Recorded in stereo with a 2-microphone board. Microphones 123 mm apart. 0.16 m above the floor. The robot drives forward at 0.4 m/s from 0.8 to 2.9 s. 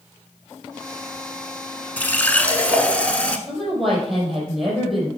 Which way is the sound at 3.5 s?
Centre (ahead or behind).